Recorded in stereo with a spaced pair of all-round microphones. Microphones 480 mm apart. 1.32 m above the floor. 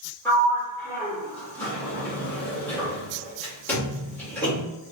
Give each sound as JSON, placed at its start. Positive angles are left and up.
{"t": 0.2, "sound": "a sliding door", "side_deg": 5, "distance_m": 2.0}